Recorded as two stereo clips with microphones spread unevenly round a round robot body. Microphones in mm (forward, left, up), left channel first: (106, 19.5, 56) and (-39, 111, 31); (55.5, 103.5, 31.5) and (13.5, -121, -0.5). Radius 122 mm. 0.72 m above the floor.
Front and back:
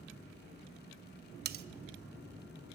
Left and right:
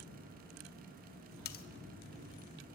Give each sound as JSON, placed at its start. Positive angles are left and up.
{"t": 1.4, "sound": "cutlery clinking", "azimuth_deg": 135, "distance_m": 0.9}